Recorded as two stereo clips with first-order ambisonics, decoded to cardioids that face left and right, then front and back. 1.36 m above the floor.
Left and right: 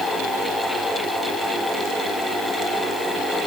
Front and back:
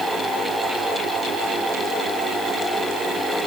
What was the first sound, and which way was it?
Only background noise.